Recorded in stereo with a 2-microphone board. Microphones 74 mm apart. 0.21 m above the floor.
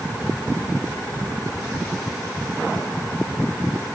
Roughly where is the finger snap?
No finger snap in this recording.